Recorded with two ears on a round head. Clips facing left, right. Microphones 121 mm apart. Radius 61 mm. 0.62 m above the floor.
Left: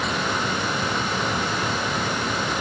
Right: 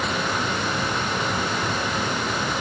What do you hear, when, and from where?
Only background noise.